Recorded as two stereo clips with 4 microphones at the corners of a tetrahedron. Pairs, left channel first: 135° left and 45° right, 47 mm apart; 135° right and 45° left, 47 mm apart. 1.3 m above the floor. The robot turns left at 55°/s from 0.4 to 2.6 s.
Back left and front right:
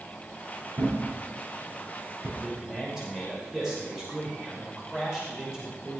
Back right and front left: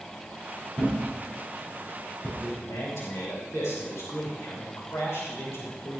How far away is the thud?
About 5 m.